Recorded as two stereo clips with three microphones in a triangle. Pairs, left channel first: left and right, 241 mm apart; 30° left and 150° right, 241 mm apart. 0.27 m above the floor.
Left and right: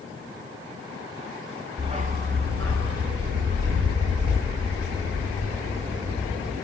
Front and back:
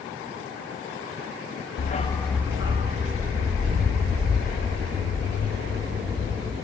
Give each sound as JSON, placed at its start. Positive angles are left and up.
{"t": 1.8, "sound": "a dog barking", "azimuth_deg": -20, "distance_m": 0.6}